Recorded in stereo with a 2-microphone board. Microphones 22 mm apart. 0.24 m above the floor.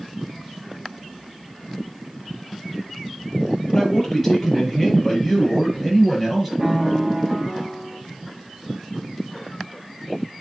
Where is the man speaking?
10° left (ahead or behind), 7 m; by 6.5 s 5° right (ahead or behind), 6.5 m.